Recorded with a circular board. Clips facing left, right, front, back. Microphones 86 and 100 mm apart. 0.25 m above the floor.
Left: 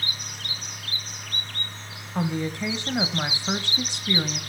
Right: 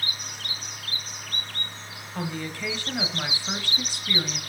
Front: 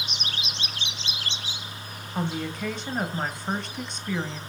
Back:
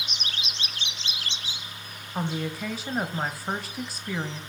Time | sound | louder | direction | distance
2.1 | a woman speaking | left 5 dB, even | 100° left | 1.0 m